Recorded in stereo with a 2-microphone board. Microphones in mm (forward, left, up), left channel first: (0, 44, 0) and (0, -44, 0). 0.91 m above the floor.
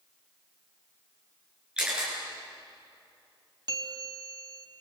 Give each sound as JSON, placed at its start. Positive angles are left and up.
{"t": 1.8, "sound": "a camera shutter", "side_deg": -10, "distance_m": 8.5}
{"t": 3.7, "sound": "a bell", "side_deg": -50, "distance_m": 1.8}